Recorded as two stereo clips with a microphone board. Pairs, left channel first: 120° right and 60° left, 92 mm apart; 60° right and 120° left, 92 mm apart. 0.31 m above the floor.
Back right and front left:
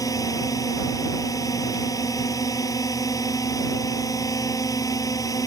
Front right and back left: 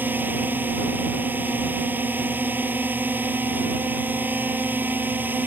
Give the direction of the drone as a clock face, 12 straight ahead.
6 o'clock.